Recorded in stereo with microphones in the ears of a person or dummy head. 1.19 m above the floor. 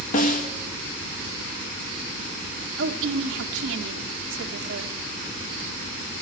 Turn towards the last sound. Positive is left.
turn(degrees=-75)  # may be behind; listen again after turning